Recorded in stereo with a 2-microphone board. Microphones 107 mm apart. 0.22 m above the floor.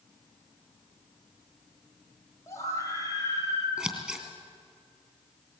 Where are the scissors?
10° right (ahead or behind), 2.5 m.